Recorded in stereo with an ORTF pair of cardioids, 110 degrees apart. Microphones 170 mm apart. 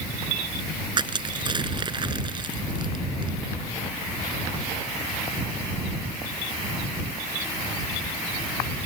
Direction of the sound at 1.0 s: 30° right.